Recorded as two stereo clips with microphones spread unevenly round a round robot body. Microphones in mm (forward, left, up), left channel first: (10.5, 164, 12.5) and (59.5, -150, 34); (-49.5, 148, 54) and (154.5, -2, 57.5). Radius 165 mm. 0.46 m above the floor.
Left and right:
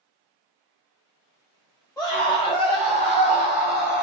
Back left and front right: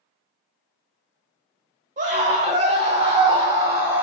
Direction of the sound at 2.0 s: 20° left.